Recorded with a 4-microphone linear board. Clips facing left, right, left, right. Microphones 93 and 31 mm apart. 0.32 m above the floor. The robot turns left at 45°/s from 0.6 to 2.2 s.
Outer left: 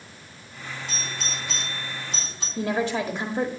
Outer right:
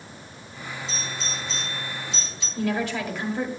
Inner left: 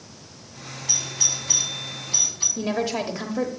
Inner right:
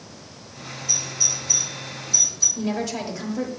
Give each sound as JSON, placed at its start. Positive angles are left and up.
{"t": 0.9, "sound": "a doorbell", "side_deg": 55, "distance_m": 3.5}
{"t": 2.6, "sound": "a woman speaking", "side_deg": 25, "distance_m": 1.2}